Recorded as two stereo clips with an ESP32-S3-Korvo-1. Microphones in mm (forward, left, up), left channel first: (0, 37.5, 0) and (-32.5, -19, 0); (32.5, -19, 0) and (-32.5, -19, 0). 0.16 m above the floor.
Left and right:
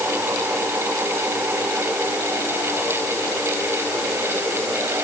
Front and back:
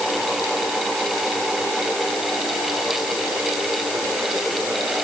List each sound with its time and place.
Only background noise.